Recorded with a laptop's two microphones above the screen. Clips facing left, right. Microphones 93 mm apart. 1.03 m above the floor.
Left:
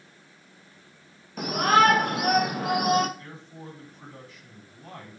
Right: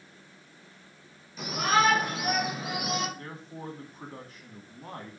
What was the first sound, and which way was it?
A shout, 55° left (ahead or behind).